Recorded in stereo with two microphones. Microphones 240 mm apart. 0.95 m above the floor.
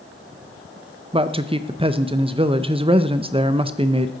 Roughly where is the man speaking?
Right.